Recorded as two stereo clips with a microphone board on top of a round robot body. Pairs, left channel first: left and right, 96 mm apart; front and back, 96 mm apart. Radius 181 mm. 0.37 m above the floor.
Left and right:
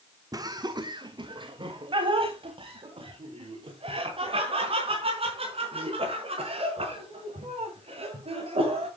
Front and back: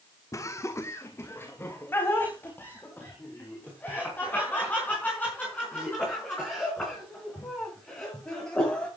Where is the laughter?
50° right, 1.8 m; by 8.9 s 75° right, 10 m.